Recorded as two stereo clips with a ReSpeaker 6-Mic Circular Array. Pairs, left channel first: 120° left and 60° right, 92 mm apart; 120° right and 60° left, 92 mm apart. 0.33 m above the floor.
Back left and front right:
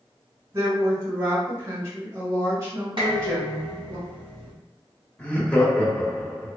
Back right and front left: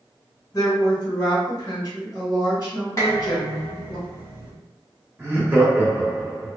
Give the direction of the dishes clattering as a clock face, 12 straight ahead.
2 o'clock.